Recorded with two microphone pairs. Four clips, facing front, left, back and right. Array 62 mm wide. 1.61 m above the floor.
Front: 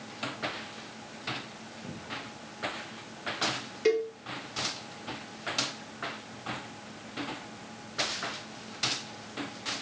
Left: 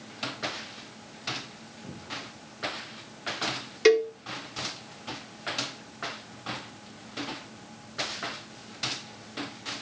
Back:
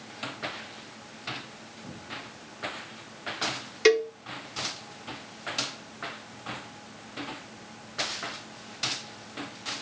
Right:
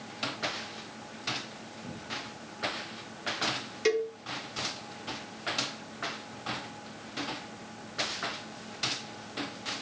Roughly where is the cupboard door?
Ahead.